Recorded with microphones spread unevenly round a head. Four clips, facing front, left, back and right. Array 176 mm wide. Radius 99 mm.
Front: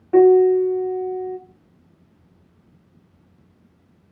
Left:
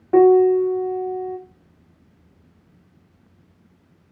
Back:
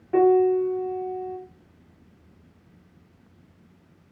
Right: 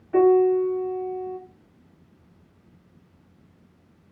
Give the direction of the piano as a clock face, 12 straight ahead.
9 o'clock.